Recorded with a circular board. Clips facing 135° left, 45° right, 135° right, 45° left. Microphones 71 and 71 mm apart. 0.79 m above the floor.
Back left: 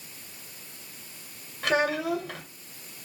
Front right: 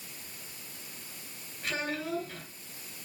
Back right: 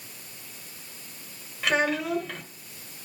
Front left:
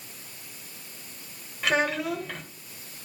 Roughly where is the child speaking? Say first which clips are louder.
Back left 9 dB, even; behind left.